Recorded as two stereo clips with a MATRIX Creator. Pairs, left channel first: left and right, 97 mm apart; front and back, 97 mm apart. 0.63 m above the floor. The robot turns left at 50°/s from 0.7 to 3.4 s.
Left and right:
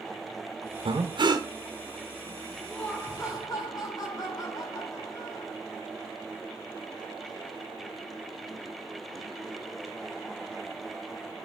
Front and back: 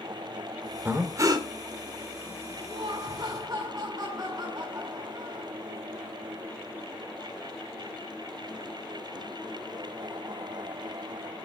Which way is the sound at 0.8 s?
110° right.